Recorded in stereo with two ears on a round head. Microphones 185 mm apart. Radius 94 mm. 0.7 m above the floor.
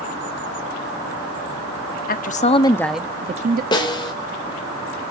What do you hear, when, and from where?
2.1 s a woman speaking: 45° left (ahead or behind), 1.6 m; by 3.6 s 45° right (ahead or behind), 1.2 m
3.7 s a snare drum: 20° left (ahead or behind), 3 m